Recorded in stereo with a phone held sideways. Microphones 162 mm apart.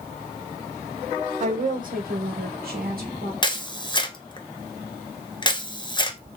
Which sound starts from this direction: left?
A camera shutter, at 3.4 s.